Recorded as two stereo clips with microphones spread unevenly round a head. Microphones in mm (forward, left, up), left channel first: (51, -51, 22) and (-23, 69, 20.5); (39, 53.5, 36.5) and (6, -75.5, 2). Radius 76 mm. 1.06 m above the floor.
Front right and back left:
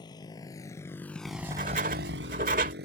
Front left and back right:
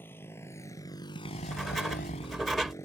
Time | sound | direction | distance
0.0 | a motorcycle | straight ahead | ?
1.2 | writing | 160° left | ?